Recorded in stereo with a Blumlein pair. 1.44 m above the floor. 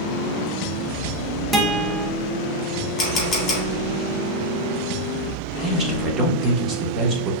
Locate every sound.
1.5 s a guitar: 10° right, 0.7 m
3.0 s a camera shutter: 20° left, 2.0 m
5.6 s a man speaking: 30° right, 1.2 m